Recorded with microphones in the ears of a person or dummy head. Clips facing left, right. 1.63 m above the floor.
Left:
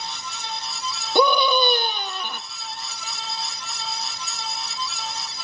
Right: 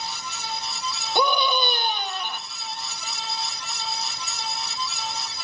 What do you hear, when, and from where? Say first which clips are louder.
1.1 s a scream: left 5 dB; 75° left (ahead or behind), 2.5 m